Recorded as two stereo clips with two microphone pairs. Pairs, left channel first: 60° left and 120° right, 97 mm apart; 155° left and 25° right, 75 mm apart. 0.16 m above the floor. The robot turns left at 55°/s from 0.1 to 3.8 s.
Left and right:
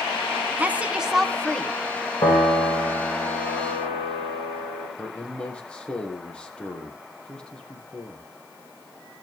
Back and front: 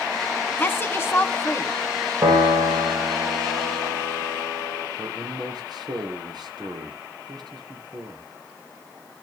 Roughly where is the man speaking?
Ahead.